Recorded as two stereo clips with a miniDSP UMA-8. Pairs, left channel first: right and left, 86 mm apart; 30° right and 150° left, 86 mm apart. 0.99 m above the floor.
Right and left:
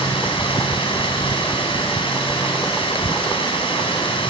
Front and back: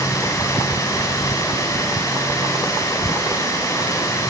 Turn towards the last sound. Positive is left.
turn(degrees=-80)